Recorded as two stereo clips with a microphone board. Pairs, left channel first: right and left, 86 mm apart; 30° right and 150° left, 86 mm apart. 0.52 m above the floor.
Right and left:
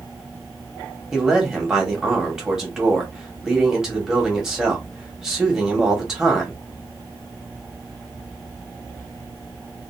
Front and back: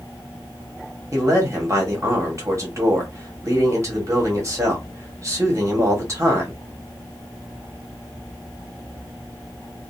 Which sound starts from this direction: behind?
A man speaking, at 1.1 s.